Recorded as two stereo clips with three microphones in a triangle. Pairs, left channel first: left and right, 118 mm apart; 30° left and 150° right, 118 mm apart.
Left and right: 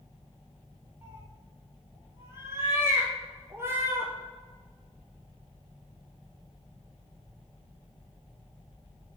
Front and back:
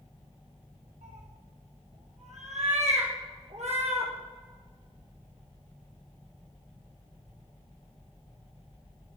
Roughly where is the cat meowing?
Behind.